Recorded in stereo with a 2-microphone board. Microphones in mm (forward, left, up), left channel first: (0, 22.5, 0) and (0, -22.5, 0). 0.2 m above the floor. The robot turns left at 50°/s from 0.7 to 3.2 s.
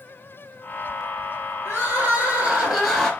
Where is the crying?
115° right, 1.1 m; by 3.1 s 170° left, 1.1 m.